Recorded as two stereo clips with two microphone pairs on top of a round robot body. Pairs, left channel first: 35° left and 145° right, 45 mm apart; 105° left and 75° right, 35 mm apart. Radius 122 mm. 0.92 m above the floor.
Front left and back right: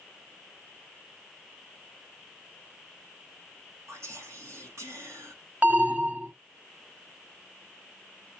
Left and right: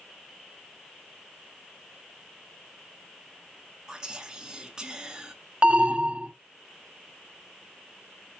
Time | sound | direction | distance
3.9 | whispering | 145° right | 1.5 m
5.6 | an alarm | 95° right | 0.9 m